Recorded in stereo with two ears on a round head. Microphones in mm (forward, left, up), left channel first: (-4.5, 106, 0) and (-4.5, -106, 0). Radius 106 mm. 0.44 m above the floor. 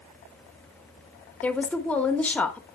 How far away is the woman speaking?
About 1.0 m.